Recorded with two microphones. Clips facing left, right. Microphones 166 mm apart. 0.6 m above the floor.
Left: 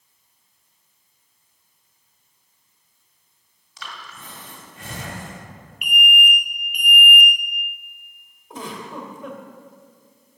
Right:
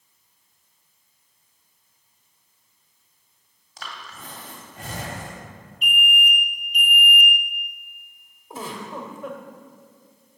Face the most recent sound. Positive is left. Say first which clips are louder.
# even
turn(degrees=-5)  # may be behind; listen again after turning